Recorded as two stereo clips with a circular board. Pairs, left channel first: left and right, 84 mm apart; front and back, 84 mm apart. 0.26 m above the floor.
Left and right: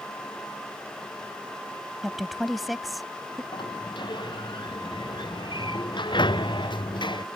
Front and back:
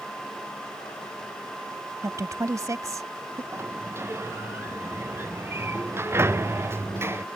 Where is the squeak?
I don't hear a squeak.